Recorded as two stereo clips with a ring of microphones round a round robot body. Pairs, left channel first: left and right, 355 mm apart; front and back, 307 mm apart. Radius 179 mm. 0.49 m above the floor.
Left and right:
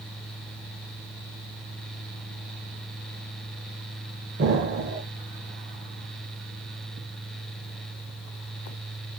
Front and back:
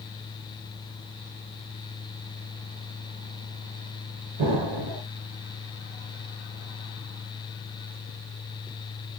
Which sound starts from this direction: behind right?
An explosion, at 4.4 s.